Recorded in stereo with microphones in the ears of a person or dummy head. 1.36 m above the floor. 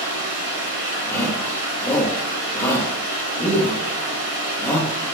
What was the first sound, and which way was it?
Running water, 55° right (ahead or behind).